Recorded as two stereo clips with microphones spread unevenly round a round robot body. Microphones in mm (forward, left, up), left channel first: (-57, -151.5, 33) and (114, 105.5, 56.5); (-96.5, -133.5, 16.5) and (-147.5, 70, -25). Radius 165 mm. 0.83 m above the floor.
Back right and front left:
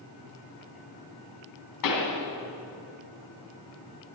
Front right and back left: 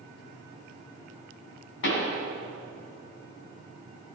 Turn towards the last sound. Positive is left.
turn(degrees=-100)